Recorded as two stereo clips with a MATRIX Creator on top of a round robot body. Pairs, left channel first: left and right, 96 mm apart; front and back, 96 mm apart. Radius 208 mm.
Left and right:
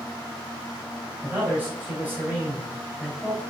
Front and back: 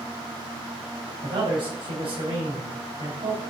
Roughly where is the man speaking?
Behind.